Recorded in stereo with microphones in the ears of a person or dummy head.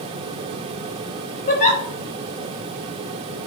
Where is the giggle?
40° left (ahead or behind), 0.8 m.